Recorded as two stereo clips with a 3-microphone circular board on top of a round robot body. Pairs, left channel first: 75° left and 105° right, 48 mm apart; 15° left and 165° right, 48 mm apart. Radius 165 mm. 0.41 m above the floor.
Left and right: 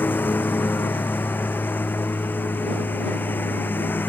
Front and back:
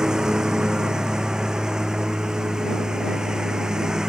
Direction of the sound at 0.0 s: 120° left.